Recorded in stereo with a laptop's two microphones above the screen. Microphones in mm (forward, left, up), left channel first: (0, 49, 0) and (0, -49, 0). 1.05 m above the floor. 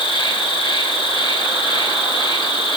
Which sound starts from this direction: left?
An insect, at 0.0 s.